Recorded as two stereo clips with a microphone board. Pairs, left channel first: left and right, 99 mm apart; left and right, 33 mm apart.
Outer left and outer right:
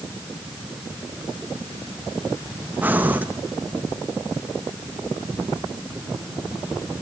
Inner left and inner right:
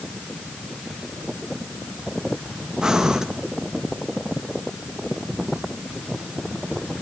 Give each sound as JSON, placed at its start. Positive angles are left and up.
{"t": 2.8, "sound": "breathing", "side_deg": -15, "distance_m": 1.5}